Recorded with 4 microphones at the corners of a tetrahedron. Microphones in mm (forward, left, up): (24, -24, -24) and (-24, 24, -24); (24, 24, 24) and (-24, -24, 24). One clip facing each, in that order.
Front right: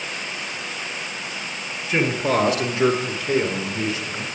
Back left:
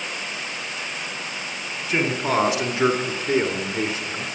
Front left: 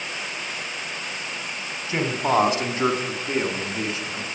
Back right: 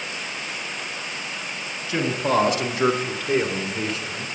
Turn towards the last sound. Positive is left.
turn(degrees=105)